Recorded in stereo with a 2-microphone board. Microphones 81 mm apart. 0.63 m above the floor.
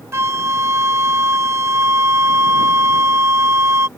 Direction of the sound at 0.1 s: 35° right (ahead or behind).